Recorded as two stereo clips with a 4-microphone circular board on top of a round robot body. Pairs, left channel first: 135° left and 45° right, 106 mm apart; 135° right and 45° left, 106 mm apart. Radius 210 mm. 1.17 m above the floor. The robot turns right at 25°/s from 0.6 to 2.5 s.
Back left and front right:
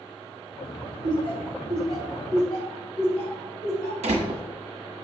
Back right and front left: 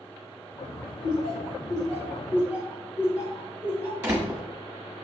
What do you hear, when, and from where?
1.0 s laughter: 85° left, 3.5 m; by 3.9 s 120° left, 3.5 m
4.0 s a door slam: 25° right, 1.0 m